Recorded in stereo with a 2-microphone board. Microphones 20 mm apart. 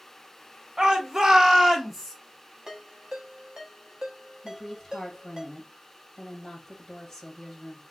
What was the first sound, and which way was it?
A shout, 45° right (ahead or behind).